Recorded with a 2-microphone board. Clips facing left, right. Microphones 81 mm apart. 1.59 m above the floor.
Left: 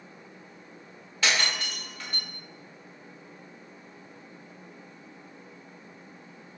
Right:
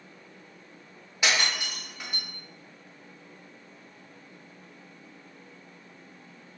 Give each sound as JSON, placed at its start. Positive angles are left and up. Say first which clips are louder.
{"t": 1.2, "sound": "breaking glass", "louder": "even", "side_deg": -15, "distance_m": 1.0}